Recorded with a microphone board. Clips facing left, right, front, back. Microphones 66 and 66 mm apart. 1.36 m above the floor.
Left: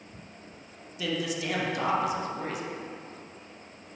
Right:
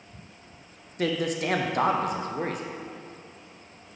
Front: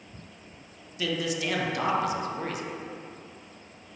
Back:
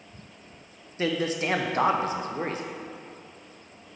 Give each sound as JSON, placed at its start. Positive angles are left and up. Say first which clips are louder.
{"t": 1.0, "sound": "a man speaking", "louder": "right 4 dB, back 3 dB", "azimuth_deg": -125, "distance_m": 0.5}